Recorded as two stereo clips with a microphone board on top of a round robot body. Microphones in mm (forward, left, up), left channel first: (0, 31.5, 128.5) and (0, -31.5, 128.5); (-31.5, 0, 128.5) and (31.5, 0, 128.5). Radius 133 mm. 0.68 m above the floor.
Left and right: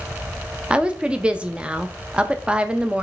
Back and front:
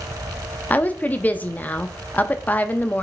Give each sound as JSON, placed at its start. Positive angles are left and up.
{"t": 0.7, "sound": "a woman speaking", "azimuth_deg": -145, "distance_m": 0.5}